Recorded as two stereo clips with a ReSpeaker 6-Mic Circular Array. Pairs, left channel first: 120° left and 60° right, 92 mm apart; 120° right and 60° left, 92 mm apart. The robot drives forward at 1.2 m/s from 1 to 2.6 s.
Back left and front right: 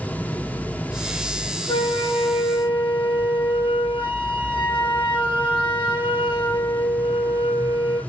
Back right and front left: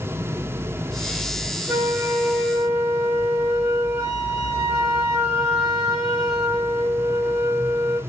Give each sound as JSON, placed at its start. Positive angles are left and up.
{"t": 1.7, "sound": "a flute", "azimuth_deg": 125, "distance_m": 3.5}